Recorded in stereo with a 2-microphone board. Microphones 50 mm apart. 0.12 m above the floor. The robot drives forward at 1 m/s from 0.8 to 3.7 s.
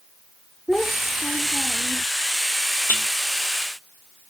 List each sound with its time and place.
0.7 s a child speaking: 20° left (ahead or behind); by 2.1 s 25° left (ahead or behind)
2.9 s dishes clattering: 35° left (ahead or behind); by 3.1 s 30° left (ahead or behind)